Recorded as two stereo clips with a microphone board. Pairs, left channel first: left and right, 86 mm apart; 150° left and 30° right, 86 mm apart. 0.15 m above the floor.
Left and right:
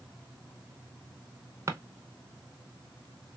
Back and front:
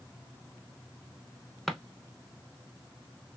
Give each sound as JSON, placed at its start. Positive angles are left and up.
{"t": 1.7, "sound": "a drawer", "azimuth_deg": -120, "distance_m": 0.6}